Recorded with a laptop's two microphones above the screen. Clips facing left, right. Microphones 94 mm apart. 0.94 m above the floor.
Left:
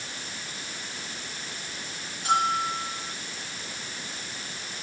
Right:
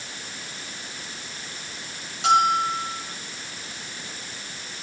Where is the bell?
85° right, 7.5 m.